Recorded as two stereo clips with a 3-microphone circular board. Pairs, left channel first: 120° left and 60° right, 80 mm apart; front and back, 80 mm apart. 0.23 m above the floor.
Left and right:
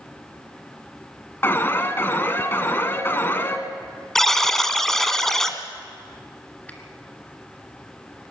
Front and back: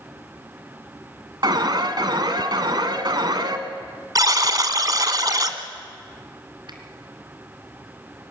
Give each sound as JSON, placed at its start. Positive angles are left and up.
{"t": 1.4, "sound": "an alarm", "azimuth_deg": 180, "distance_m": 1.5}
{"t": 4.2, "sound": "a buzzer", "azimuth_deg": -155, "distance_m": 1.3}
{"t": 6.7, "sound": "a finger snap", "azimuth_deg": -170, "distance_m": 2.5}